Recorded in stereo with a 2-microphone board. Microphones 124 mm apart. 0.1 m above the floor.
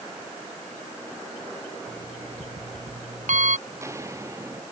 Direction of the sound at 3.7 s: 25° right (ahead or behind).